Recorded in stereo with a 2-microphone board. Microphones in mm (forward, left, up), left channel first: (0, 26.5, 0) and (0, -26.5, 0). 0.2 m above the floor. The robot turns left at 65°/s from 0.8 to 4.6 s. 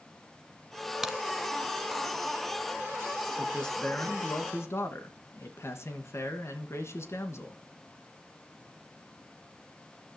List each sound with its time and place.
1.0 s a crack: 10° right (ahead or behind), 1.2 m; by 1.2 s 15° right (ahead or behind), 1.2 m
3.4 s a man speaking: straight behind, 2.5 m; by 7.6 s 105° left, 2.5 m